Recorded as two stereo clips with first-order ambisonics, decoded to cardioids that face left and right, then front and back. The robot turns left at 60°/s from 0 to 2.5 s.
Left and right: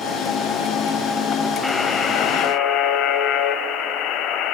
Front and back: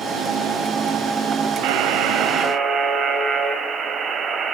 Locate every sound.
1.6 s a buzzer: 170° left, 1.6 m; by 4.5 s 120° left, 1.6 m